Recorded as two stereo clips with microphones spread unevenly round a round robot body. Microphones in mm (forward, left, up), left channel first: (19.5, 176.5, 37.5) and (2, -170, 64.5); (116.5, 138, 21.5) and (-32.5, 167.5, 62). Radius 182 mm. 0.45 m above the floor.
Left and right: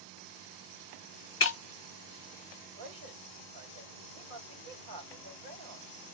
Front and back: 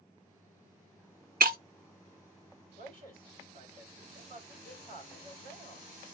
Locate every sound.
1.4 s breaking glass: 135° left, 0.7 m
2.8 s a man speaking: 120° right, 2.5 m